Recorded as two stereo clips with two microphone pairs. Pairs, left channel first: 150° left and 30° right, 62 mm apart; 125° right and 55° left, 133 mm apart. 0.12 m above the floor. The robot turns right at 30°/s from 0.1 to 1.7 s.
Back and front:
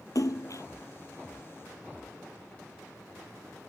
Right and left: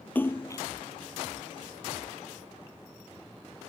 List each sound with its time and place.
0.1 s a splash: 160° left; by 0.6 s 175° left